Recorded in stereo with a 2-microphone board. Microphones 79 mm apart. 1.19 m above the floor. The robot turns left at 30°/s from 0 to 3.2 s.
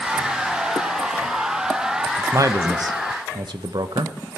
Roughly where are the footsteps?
No footsteps in this recording.